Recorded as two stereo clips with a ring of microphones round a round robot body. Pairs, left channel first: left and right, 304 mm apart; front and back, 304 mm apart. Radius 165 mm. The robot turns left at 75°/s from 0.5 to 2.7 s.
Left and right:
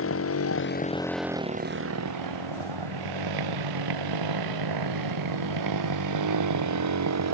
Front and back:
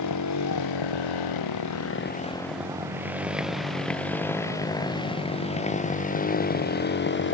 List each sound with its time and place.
0.0 s a motorcycle: 45° left; by 7.3 s 55° right